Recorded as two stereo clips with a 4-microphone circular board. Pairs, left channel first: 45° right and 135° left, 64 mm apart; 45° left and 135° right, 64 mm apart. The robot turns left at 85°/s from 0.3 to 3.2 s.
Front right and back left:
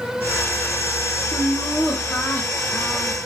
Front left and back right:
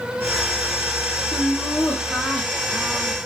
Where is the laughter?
65° left, 0.6 m; by 3.1 s 90° right, 0.6 m.